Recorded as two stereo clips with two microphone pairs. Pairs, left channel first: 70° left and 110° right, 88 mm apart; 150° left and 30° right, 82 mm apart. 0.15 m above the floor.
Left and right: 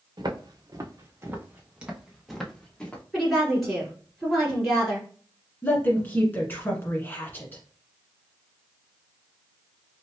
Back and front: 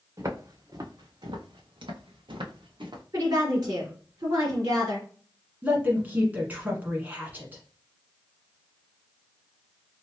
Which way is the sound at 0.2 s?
80° right.